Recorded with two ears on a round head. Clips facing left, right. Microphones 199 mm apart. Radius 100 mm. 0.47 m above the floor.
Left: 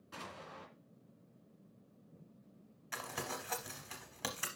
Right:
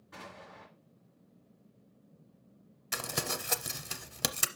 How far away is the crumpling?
About 0.7 m.